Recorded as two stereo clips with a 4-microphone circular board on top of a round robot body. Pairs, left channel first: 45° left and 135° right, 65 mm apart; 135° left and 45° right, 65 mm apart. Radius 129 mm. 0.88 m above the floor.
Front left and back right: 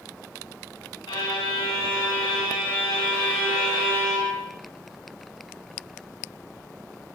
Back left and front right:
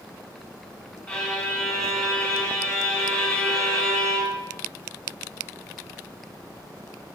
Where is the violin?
75° left, 1.5 m.